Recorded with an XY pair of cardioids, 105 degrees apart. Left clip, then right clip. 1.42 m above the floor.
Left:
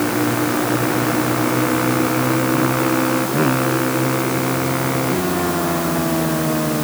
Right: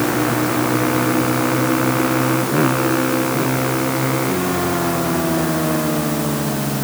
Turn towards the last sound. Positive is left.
No sound to turn to.